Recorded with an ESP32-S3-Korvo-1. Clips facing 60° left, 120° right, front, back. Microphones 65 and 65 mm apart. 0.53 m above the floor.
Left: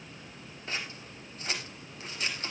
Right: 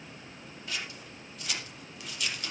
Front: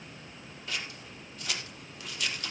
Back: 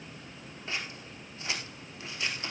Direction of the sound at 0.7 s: 115° left.